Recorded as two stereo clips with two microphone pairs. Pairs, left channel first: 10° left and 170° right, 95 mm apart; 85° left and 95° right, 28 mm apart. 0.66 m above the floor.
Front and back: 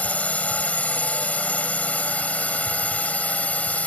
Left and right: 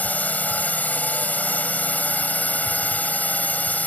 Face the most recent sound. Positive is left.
turn(degrees=85)